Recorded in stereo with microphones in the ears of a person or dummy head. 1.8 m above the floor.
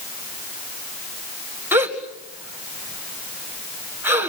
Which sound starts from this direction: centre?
A gasp, at 1.7 s.